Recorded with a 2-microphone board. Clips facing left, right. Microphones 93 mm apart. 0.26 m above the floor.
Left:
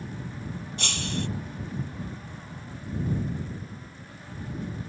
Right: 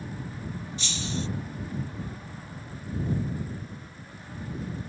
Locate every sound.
0.8 s breaking glass: 70° left (ahead or behind)